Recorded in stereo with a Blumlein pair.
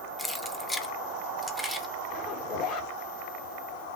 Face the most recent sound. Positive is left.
turn(degrees=40)